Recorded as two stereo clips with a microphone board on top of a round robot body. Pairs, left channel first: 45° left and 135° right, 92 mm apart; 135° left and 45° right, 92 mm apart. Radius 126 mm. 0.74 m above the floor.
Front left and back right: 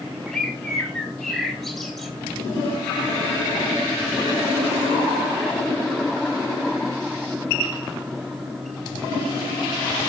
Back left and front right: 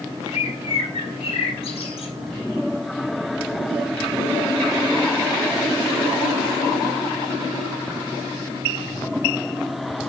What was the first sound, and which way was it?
A bird, 130° left.